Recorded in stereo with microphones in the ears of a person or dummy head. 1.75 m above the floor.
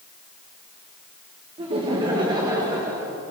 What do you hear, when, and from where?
1.6 s laughter: 30° right (ahead or behind), 2 m; by 3.1 s 15° right (ahead or behind), 2.5 m